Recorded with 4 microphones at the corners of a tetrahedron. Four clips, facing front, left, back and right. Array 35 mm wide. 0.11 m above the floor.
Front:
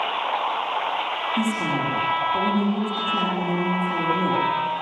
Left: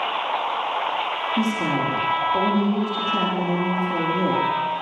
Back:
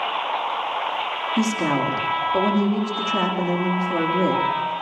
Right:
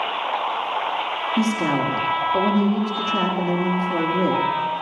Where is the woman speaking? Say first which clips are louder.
Right 3 dB, back 4 dB; 155° right, 5.5 m.